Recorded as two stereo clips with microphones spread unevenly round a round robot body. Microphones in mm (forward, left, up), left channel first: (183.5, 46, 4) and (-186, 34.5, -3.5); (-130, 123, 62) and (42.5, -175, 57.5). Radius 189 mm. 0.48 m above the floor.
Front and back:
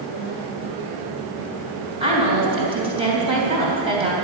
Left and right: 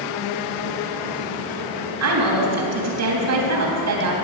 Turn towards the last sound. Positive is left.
turn(degrees=-100)